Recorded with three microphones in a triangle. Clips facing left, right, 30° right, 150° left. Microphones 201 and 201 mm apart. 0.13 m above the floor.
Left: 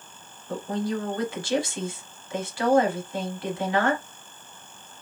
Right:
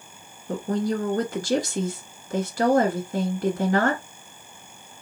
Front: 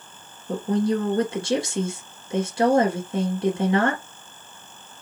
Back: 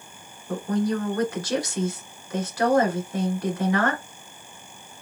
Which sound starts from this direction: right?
A woman speaking, at 0.5 s.